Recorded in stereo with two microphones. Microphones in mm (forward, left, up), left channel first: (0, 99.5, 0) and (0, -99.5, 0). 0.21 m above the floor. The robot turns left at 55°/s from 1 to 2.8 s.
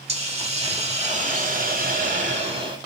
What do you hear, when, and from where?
0.1 s a hiss: 50° right, 0.9 m; by 2.8 s 145° right, 0.9 m